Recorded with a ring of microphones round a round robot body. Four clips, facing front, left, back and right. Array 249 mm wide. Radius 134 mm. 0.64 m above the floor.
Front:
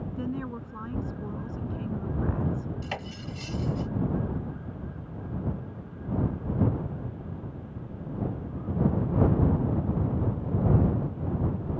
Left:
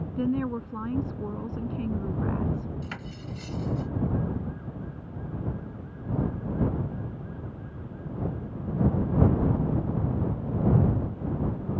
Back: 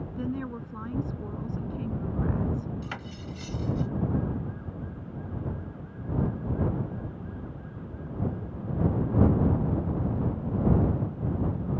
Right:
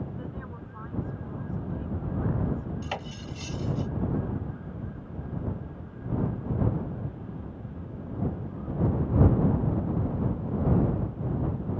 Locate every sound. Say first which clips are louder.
0.2 s a woman speaking: left 12 dB, back 1 dB; 95° left
2.8 s cutlery clinking: right 3 dB, front 2 dB; 50° right